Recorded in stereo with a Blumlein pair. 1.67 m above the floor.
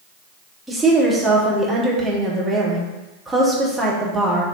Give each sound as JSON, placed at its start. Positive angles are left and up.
{"t": 0.7, "sound": "a woman speaking", "azimuth_deg": -5, "distance_m": 1.2}